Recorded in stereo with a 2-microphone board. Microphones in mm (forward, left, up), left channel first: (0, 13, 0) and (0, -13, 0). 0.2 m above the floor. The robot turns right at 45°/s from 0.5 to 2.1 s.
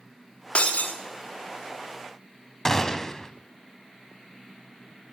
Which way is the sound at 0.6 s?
50° left (ahead or behind).